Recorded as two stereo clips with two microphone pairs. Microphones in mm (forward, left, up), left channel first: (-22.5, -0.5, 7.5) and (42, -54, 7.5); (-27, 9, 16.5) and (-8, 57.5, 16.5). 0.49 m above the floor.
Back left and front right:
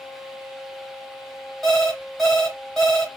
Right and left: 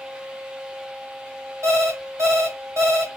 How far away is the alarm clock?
About 1.6 m.